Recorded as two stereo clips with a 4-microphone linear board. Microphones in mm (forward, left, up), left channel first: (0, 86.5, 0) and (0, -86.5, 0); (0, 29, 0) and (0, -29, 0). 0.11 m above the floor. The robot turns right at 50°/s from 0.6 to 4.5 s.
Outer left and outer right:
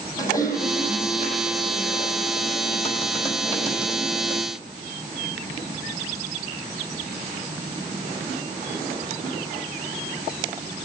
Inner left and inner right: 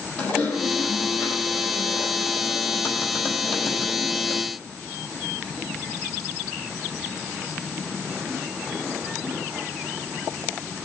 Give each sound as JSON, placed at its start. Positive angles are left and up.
{"t": 0.2, "sound": "typing on a keyboard", "azimuth_deg": 20, "distance_m": 4.0}